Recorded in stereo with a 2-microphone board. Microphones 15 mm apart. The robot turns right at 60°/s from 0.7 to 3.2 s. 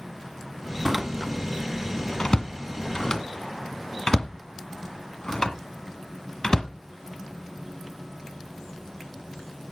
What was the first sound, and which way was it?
A door slam, 20° right (ahead or behind).